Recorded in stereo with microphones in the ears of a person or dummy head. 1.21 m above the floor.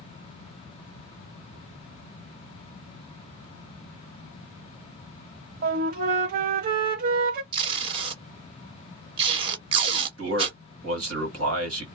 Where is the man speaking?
65° right (ahead or behind), 1.6 m.